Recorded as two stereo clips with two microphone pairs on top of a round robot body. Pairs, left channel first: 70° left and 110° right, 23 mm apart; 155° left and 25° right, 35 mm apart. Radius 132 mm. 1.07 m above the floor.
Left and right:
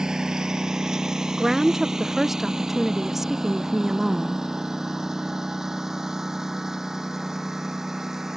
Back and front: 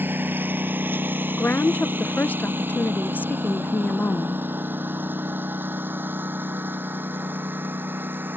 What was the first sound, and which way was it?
A lawn mower, 50° right.